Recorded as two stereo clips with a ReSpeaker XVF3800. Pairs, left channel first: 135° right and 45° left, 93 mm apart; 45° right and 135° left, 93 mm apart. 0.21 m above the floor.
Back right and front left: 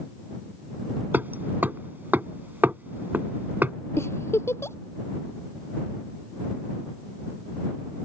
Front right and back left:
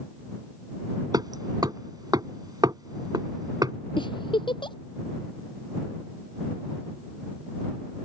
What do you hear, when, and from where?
1.1 s hammering: 110° left
4.0 s a giggle: 75° right